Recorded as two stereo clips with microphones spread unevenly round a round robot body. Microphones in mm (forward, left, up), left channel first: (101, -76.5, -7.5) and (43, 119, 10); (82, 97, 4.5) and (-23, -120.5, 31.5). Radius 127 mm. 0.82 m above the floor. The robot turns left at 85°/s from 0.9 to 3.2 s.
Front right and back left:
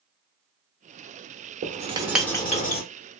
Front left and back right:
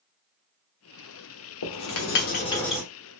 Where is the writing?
65° left, 1.0 m; by 2.8 s 35° right, 1.0 m.